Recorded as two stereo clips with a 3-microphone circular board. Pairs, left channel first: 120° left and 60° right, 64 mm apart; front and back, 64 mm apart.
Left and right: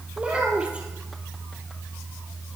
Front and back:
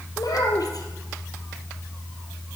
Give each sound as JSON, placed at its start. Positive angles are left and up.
{"t": 0.2, "sound": "a child speaking", "azimuth_deg": 15, "distance_m": 1.8}